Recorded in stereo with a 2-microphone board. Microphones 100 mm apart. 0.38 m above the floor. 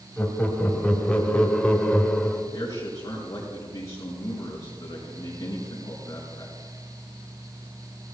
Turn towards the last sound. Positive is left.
turn(degrees=35)  # may be behind; listen again after turning